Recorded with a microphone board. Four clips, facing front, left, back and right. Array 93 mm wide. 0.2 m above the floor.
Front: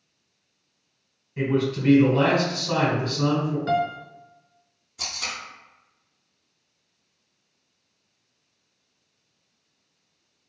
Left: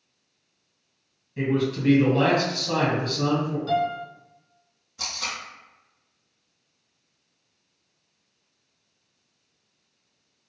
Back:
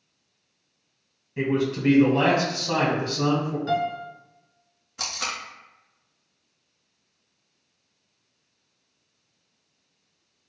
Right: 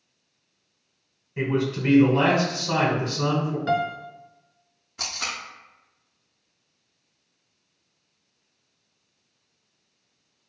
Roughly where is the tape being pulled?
Behind right.